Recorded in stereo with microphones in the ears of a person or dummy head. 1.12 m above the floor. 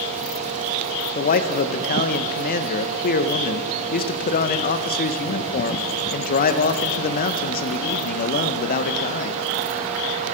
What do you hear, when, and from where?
1.1 s a man speaking: 45° left (ahead or behind), 0.6 m